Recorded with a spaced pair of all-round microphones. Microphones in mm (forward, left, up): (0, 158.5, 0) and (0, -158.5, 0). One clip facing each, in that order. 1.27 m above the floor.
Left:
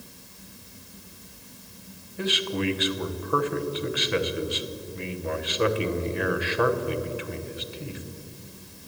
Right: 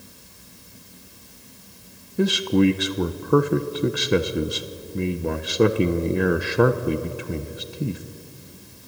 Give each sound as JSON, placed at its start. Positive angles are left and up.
{"t": 2.2, "sound": "a man speaking", "side_deg": -55, "distance_m": 1.0}